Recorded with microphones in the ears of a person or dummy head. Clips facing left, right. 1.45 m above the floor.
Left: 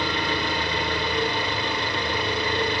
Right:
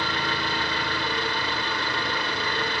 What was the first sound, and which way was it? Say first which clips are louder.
An engine running: left 3 dB; 15° left (ahead or behind).